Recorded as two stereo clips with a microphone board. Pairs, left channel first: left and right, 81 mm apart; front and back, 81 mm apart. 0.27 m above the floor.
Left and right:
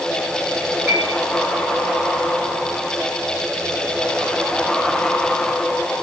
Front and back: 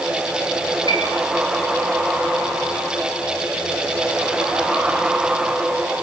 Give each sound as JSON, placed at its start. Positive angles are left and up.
{"t": 0.9, "sound": "a piano", "azimuth_deg": -20, "distance_m": 6.0}